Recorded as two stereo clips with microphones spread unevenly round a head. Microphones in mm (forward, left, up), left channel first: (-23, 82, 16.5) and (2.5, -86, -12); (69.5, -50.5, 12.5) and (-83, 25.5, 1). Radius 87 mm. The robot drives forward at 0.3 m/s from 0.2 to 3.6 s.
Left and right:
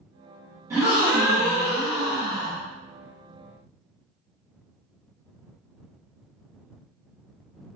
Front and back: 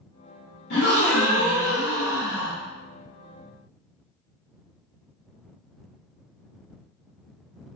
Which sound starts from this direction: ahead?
A gasp, at 0.7 s.